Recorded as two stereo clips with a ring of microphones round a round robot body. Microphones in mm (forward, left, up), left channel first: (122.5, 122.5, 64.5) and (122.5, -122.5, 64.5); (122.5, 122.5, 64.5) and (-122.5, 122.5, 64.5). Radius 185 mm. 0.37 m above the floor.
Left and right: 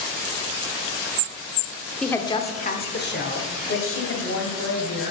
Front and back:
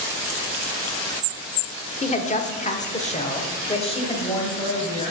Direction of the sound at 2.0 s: 5° left.